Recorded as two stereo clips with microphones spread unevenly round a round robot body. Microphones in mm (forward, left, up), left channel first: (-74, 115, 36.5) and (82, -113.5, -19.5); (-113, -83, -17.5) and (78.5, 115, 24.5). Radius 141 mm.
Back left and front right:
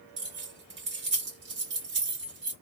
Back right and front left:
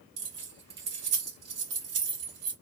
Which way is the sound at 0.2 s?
10° right.